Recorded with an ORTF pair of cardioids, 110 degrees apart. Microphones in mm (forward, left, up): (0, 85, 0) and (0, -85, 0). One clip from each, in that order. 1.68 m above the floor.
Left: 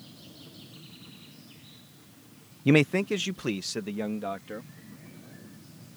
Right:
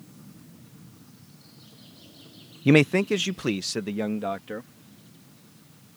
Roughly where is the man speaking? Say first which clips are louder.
Right 3 dB; ahead.